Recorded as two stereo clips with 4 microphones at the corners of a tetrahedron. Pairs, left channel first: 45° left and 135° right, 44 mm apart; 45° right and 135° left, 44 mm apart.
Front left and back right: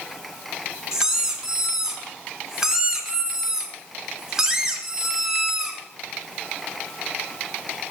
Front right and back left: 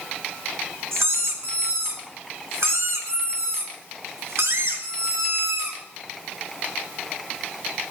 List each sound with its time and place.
0.9 s a squeak: 145° left, 1.9 m